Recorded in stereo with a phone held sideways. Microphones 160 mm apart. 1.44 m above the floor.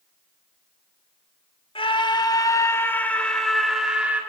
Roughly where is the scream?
Left.